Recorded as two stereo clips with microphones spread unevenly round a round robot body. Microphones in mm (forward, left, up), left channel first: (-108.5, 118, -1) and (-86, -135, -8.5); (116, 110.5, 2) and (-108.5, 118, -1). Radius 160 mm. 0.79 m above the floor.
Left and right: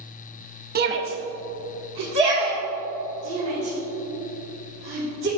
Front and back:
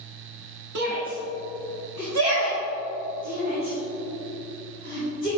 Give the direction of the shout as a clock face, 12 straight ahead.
5 o'clock.